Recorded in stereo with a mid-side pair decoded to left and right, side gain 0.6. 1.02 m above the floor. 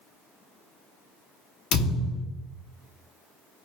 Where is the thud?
60° left, 0.9 m.